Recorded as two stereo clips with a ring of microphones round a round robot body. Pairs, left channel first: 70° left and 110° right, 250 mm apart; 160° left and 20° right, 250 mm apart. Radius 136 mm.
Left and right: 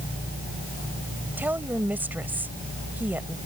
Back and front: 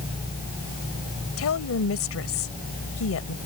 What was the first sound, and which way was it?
A woman speaking, 165° left.